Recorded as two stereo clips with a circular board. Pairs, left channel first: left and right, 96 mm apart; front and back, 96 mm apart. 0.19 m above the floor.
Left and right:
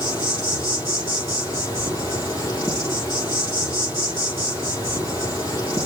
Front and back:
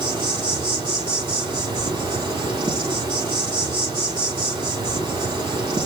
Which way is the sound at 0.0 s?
140° left.